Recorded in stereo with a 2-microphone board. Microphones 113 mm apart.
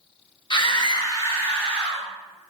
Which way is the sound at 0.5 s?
45° left (ahead or behind).